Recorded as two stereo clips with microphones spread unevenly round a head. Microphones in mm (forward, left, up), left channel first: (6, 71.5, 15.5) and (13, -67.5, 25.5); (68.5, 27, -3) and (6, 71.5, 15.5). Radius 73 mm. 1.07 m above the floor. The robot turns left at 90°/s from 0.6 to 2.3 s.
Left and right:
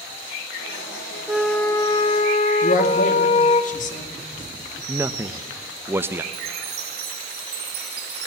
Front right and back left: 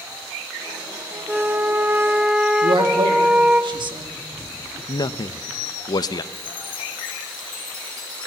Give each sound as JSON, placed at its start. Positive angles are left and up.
{"t": 1.3, "sound": "a flute", "azimuth_deg": -160, "distance_m": 0.9}
{"t": 2.6, "sound": "a man speaking", "azimuth_deg": 125, "distance_m": 2.5}
{"t": 4.9, "sound": "a man speaking", "azimuth_deg": -10, "distance_m": 0.8}
{"t": 6.3, "sound": "a chime", "azimuth_deg": -75, "distance_m": 3.0}